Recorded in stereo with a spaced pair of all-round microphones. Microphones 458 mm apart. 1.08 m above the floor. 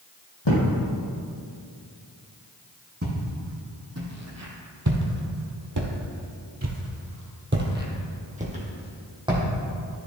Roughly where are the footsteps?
Right.